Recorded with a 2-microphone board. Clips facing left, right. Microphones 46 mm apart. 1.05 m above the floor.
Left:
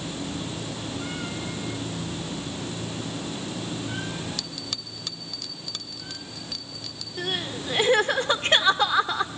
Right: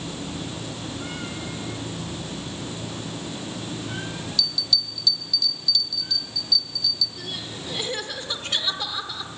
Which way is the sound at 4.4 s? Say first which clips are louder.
Right 7 dB; 45° left (ahead or behind).